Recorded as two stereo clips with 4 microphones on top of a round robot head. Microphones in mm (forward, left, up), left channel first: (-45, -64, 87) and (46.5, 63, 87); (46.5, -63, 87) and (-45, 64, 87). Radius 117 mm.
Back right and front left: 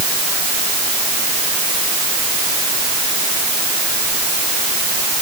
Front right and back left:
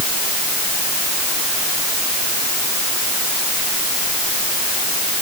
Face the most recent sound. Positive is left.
No sound to turn to.